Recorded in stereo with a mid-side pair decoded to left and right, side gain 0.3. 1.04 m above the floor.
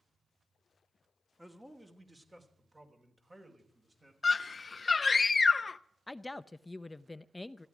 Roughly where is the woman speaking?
Ahead.